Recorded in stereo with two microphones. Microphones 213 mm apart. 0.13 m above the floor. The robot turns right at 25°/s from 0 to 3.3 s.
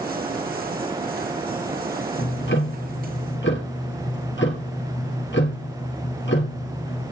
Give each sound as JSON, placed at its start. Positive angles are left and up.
{"t": 2.2, "sound": "ticking", "side_deg": 55, "distance_m": 2.5}